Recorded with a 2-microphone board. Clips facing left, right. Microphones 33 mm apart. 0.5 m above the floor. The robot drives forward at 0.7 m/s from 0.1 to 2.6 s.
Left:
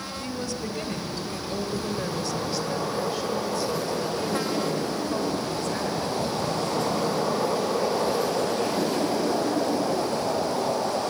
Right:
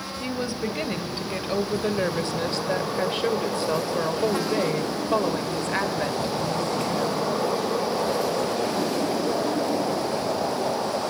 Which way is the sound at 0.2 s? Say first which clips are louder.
Right 5 dB; 30° right (ahead or behind).